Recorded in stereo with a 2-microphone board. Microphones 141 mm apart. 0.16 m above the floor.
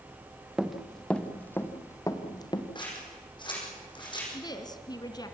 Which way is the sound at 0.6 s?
5° right (ahead or behind).